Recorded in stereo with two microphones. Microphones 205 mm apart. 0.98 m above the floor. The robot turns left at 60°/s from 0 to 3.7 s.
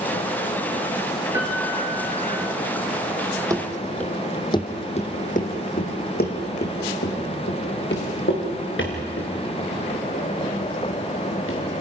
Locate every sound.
1.3 s a piano: 165° right, 3.5 m; by 2.4 s 130° left, 3.5 m
3.5 s running footsteps: 15° right (ahead or behind), 1.8 m; by 11.8 s 75° left (ahead or behind), 7.5 m